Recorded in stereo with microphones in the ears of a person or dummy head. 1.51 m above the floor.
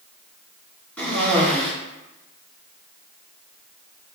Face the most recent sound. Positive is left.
turn(degrees=10)  # may be behind; listen again after turning